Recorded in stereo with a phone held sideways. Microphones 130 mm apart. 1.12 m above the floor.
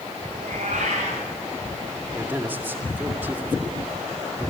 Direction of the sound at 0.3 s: 70° right (ahead or behind).